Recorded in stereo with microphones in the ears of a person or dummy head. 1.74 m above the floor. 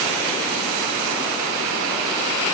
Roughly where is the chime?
I don't hear a chime.